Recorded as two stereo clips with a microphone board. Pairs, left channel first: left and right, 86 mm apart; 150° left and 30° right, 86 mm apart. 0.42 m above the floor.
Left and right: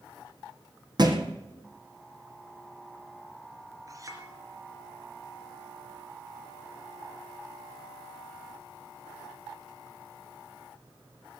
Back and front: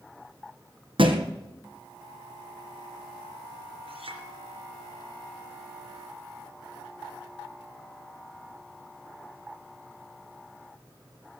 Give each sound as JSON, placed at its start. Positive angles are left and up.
{"t": 1.0, "sound": "a thud", "azimuth_deg": -50, "distance_m": 1.9}
{"t": 3.9, "sound": "a clink", "azimuth_deg": -40, "distance_m": 3.5}